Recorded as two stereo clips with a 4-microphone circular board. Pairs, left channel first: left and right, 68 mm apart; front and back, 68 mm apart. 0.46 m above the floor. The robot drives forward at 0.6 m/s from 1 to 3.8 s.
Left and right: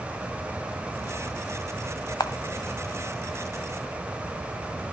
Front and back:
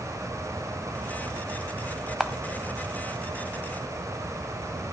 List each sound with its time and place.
2.2 s a camera shutter: 100° left, 1.0 m